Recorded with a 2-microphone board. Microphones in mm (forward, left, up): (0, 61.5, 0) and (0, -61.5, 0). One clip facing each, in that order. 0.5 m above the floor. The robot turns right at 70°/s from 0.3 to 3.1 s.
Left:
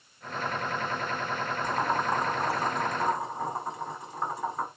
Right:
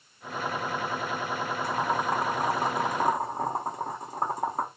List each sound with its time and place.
1.6 s boiling: 20° left (ahead or behind), 1.4 m; by 4.7 s 40° right (ahead or behind), 1.4 m